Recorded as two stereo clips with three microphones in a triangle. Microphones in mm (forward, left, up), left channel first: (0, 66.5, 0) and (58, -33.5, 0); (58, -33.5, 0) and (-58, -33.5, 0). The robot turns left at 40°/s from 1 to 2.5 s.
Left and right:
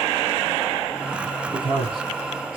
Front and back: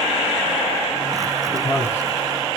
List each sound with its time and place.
1.5 s a man speaking: 45° right, 2 m; by 2.6 s 80° right, 2 m